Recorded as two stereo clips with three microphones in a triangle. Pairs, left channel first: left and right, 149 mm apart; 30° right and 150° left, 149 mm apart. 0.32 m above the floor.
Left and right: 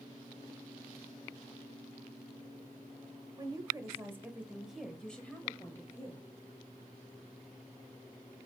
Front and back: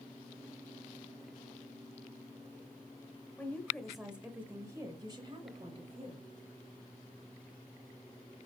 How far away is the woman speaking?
About 1.5 m.